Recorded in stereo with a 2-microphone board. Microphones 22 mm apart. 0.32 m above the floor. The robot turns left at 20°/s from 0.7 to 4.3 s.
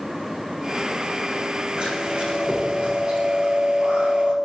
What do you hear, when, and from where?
1.8 s chewing: 45° right, 9.5 m; by 4.3 s 95° right, 9.5 m